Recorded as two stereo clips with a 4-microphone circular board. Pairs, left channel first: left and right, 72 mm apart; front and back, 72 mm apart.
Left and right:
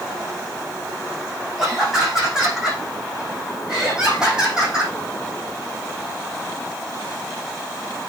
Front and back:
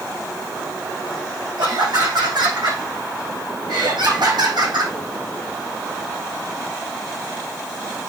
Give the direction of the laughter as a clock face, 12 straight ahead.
6 o'clock.